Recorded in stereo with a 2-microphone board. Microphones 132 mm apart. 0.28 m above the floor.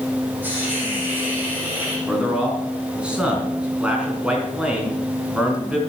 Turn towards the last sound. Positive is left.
turn(degrees=-10)  # may be behind; listen again after turning